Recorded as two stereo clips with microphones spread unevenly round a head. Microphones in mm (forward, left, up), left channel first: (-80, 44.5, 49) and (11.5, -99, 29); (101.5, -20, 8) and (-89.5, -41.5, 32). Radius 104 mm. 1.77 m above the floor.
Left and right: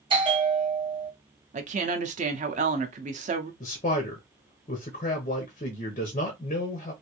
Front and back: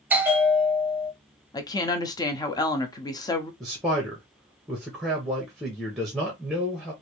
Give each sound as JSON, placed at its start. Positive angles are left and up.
{"t": 0.1, "sound": "a bell", "azimuth_deg": -110, "distance_m": 1.2}
{"t": 1.5, "sound": "a woman speaking", "azimuth_deg": -60, "distance_m": 0.6}
{"t": 3.6, "sound": "a man speaking", "azimuth_deg": 105, "distance_m": 0.8}